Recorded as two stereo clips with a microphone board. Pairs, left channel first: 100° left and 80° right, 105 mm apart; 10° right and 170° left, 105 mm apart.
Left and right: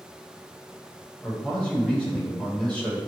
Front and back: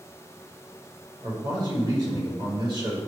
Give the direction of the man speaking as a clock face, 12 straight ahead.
6 o'clock.